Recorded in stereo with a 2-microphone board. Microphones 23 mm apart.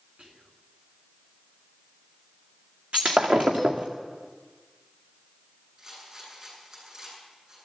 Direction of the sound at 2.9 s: 60° right (ahead or behind).